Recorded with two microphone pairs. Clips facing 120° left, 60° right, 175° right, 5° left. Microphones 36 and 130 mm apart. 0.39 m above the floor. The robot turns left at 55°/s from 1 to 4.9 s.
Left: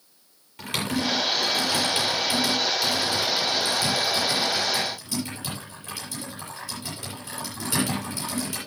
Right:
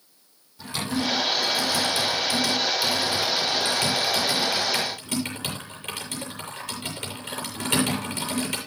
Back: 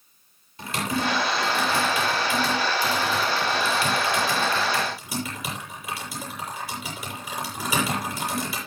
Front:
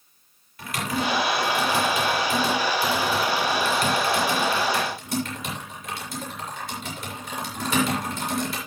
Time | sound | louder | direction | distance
0.6 | typing on a keyboard | left 1 dB, even | 125° left | 8.5 m